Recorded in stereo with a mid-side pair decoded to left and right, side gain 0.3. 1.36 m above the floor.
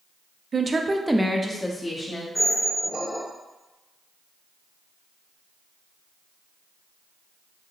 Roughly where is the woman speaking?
Ahead right.